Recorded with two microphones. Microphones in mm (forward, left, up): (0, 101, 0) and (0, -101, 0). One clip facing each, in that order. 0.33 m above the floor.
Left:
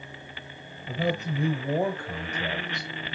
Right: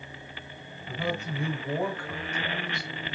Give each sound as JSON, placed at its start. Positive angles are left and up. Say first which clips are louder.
{"t": 0.9, "sound": "a man speaking", "louder": "left 4 dB", "side_deg": 40, "distance_m": 1.2}